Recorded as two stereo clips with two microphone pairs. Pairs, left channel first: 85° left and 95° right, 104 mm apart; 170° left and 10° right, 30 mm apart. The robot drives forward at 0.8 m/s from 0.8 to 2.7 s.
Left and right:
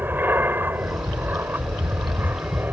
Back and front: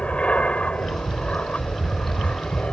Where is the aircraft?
160° right.